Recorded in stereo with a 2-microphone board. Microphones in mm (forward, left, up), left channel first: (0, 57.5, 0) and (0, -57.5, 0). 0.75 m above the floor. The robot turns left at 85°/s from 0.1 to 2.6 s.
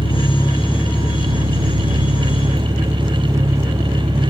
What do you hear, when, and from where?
0.0 s an engine running: 60° left, 1.5 m; by 4.3 s 155° right, 1.5 m